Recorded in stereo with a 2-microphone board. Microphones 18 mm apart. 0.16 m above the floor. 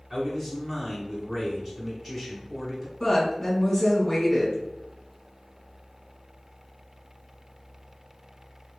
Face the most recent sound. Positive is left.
turn(degrees=15)  # may be behind; listen again after turning